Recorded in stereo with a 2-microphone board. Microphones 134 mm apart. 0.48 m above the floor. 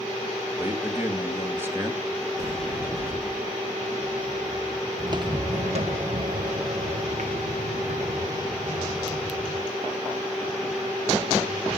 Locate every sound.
0.6 s a man speaking: 15° right (ahead or behind), 2.0 m
2.4 s a sliding door: 25° right (ahead or behind), 4 m
5.0 s footsteps: 25° right (ahead or behind), 0.6 m; by 9.7 s 70° right (ahead or behind), 3.5 m